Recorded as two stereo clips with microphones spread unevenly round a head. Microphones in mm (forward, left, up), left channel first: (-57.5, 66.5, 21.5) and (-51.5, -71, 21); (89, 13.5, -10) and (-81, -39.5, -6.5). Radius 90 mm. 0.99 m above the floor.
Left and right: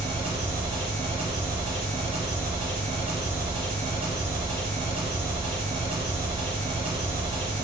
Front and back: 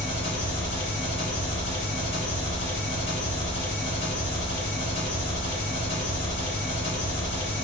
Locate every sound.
0.0 s an engine running: 20° right, 1.7 m